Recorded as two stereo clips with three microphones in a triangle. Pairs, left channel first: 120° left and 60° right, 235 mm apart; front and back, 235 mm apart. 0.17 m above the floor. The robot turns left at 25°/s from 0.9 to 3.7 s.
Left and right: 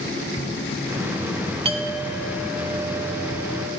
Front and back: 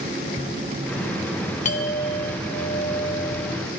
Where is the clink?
20° right, 0.8 m; by 3.6 s 65° right, 0.8 m.